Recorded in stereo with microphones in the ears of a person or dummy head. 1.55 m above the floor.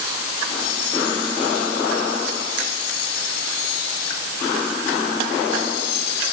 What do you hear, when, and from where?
Only background noise.